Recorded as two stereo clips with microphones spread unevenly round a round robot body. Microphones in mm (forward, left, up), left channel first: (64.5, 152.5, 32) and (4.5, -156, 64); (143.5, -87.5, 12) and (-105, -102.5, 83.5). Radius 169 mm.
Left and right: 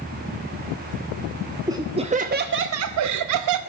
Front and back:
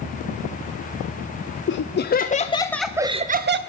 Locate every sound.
1.7 s laughter: 20° right, 0.9 m; by 3.6 s 125° right, 0.7 m